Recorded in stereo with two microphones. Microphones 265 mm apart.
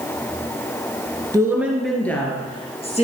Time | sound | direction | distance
1.3 | a woman speaking | 10° right (ahead or behind) | 1.9 m